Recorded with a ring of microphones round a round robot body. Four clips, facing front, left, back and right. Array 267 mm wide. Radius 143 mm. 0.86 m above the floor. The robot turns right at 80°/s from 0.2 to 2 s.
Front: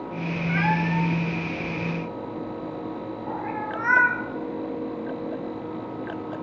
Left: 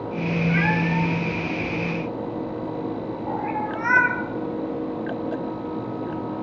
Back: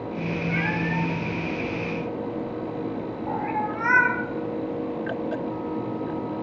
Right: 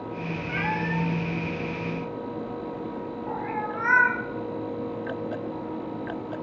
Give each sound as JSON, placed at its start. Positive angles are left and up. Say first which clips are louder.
{"t": 0.5, "sound": "a cat meowing", "louder": "left 3 dB, front 5 dB", "azimuth_deg": 10, "distance_m": 2.5}